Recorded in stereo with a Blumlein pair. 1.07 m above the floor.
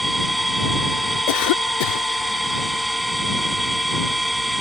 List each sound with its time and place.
0.0 s a machine running: straight ahead
1.3 s a cough: 50° left